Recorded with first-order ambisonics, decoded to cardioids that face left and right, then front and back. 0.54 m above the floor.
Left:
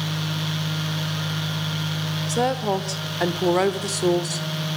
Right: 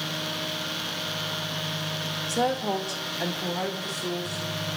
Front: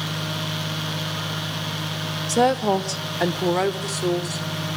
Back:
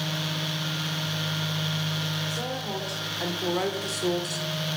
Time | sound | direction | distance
2.3 | a woman speaking | 15° left | 1.7 m